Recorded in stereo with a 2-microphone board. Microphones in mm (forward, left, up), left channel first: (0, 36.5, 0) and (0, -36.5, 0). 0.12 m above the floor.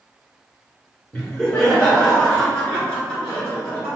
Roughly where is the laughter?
Centre.